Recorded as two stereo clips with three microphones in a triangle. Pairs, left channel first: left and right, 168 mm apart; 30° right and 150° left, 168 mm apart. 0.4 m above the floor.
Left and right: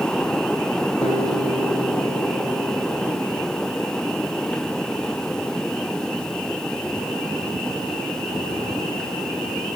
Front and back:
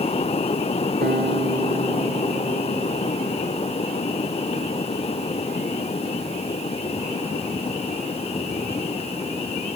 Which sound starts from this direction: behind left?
A guitar, at 1.0 s.